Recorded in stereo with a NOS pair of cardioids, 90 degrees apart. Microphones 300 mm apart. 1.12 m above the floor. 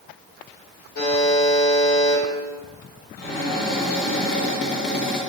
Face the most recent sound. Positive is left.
turn(degrees=40)